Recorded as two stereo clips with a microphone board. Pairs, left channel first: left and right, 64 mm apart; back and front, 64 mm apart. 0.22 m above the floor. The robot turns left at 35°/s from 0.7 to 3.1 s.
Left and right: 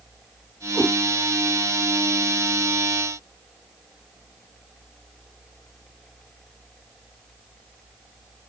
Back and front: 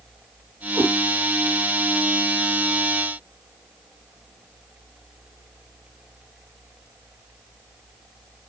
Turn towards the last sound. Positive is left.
turn(degrees=-70)